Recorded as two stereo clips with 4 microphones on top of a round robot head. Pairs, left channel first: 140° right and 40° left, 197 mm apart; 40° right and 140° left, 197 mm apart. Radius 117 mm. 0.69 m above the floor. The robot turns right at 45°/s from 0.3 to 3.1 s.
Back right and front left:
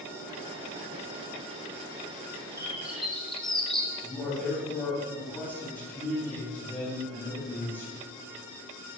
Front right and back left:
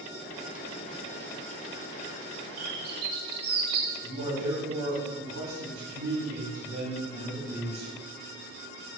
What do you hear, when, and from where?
2.6 s a bird: 110° left, 1.8 m; by 3.9 s 130° left, 1.8 m
4.0 s a man speaking: 140° left, 5 m